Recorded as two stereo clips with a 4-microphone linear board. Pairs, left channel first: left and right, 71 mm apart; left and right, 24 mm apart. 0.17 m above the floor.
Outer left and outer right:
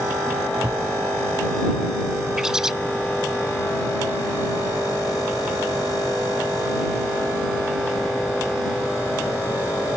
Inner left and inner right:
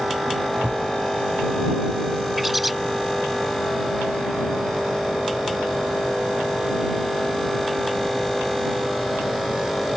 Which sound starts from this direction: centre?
A bird, at 2.4 s.